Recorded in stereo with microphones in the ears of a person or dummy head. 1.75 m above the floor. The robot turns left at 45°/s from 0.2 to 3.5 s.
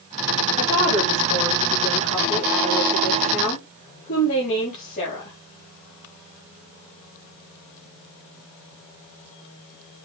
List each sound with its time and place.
0.6 s a woman speaking: 175° left, 4.5 m; by 5.3 s 45° left, 4.5 m